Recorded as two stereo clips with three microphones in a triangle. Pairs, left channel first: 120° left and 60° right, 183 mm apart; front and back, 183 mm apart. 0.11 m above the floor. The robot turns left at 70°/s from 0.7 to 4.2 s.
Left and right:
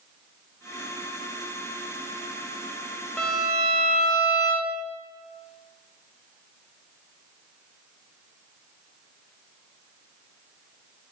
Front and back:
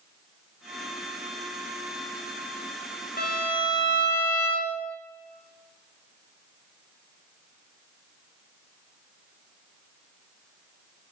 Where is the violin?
30° left, 1.9 m; by 4.8 s 40° right, 1.9 m.